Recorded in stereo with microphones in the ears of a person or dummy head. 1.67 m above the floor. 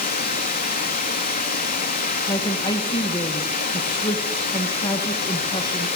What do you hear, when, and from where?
0.0 s running water: 45° left (ahead or behind), 2.5 m
2.3 s a woman speaking: 25° left (ahead or behind), 2.0 m